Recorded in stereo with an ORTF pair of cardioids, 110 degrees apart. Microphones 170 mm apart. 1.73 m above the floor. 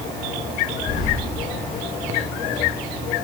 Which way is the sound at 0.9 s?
45° left.